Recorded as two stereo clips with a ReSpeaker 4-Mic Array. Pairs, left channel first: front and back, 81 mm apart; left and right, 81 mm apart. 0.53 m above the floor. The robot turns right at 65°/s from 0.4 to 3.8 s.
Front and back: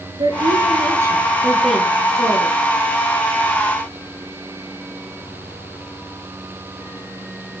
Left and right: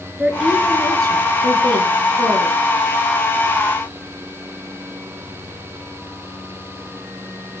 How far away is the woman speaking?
About 6 m.